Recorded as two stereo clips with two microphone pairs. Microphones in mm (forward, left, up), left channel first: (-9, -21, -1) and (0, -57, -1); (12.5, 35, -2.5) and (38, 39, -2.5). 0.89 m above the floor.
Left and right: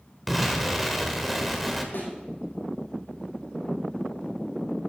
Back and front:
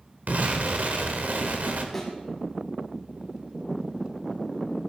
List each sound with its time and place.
0.3 s an explosion: 10° left, 1.7 m
1.9 s a thud: 105° left, 6 m